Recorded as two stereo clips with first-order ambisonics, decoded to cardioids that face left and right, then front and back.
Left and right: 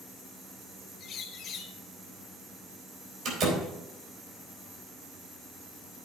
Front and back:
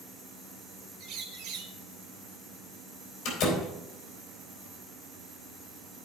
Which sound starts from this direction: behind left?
A bird, at 1.0 s.